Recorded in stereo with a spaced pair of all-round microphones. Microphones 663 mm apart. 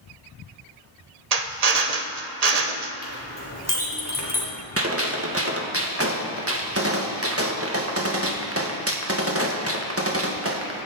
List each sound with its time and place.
1.3 s a drill: 70° right (ahead or behind), 1.0 m
3.0 s a clink: 30° left (ahead or behind), 3.5 m
4.8 s a gunshot: 20° right (ahead or behind), 1.5 m